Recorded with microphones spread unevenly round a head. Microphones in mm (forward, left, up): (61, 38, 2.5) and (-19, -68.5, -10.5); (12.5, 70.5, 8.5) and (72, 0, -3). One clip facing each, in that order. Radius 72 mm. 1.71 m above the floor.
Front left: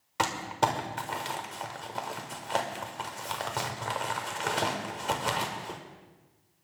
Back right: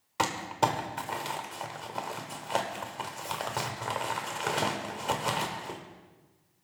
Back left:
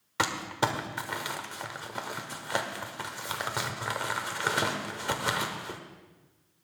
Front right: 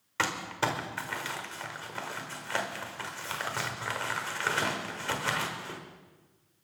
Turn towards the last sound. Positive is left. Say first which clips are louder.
# even, back left 2 dB
turn(degrees=135)